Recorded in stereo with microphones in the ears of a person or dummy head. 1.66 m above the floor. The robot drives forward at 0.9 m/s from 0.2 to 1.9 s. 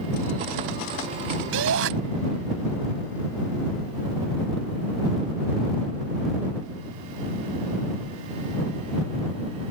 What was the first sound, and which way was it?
A shout, 75° right (ahead or behind).